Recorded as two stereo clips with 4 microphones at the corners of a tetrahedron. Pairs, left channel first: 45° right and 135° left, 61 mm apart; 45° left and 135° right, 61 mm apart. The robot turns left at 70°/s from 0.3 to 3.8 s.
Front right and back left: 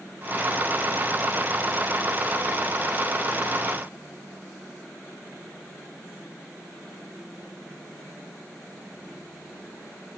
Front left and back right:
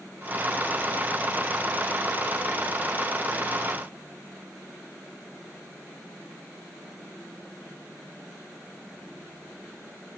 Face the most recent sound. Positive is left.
No sound to turn to.